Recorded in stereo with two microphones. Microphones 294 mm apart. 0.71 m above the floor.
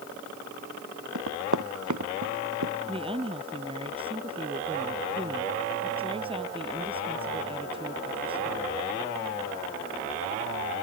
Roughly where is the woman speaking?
Centre.